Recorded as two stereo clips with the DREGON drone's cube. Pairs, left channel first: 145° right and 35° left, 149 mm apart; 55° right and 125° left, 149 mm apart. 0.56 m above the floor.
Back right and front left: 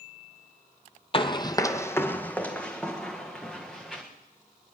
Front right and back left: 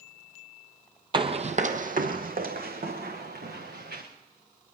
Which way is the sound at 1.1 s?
170° left.